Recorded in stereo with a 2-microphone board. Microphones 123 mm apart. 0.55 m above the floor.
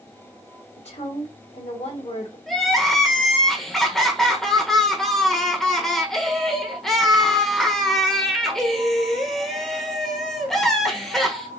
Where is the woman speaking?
60° left (ahead or behind), 2 m.